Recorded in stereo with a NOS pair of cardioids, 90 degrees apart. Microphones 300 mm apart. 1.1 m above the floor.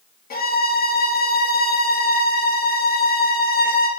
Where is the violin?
30° left, 0.8 m.